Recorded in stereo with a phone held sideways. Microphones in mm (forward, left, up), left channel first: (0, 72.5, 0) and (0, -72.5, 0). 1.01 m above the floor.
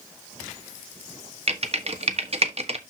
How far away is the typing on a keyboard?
About 1.2 m.